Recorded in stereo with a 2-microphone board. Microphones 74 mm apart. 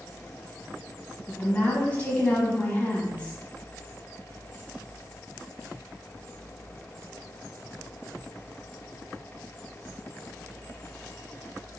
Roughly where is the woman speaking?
Centre.